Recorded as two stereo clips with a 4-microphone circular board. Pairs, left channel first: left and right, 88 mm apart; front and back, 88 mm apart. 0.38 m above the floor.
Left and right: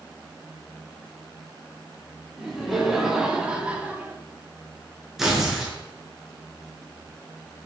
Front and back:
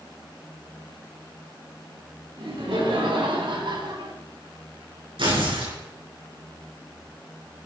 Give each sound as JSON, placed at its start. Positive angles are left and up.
{"t": 2.4, "sound": "laughter", "azimuth_deg": 180, "distance_m": 5.0}
{"t": 5.2, "sound": "tearing paper", "azimuth_deg": -175, "distance_m": 5.5}